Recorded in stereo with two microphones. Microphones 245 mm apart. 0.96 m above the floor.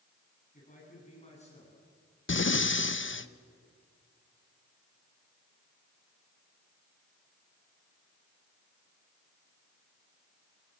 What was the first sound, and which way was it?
A man speaking, 30° left (ahead or behind).